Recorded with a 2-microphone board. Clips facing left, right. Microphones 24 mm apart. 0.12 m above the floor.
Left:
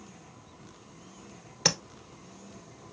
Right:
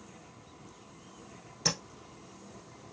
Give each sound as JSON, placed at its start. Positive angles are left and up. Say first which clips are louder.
{"t": 1.6, "sound": "tapping", "louder": "left 4 dB", "side_deg": 35, "distance_m": 1.0}